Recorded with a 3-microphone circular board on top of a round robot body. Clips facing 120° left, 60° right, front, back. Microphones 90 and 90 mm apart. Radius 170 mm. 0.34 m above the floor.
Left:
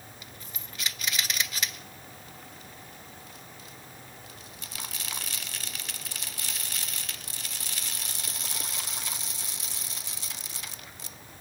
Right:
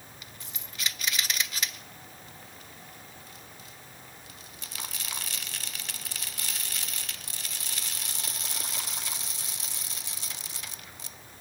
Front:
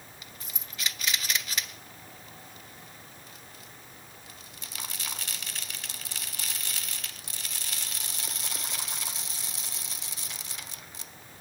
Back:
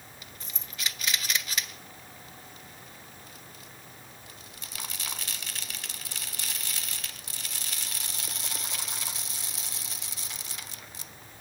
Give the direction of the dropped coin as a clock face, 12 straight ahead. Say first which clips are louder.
Left 1 dB, even; 3 o'clock.